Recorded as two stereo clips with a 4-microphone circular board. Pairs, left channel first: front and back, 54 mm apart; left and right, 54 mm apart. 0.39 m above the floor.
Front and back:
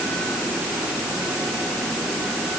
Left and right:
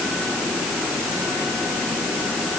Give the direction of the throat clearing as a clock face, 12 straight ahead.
I don't hear throat clearing.